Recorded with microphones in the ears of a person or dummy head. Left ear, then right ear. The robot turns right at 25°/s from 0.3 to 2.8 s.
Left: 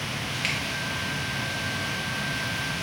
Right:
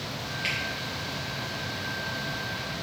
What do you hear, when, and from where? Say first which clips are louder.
0.4 s a finger snap: left 1 dB; 20° left (ahead or behind), 0.7 m